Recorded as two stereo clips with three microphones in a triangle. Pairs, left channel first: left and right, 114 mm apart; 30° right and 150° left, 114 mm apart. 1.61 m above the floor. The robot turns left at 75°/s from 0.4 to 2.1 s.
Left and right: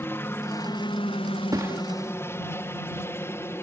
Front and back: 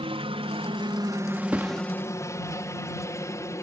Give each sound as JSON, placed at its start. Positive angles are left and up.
{"t": 0.0, "sound": "a helicopter", "azimuth_deg": 155}
{"t": 1.5, "sound": "a thud", "azimuth_deg": -140}